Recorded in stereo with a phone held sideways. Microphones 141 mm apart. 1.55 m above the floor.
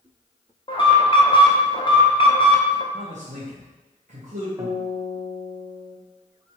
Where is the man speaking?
60° right (ahead or behind), 0.8 m.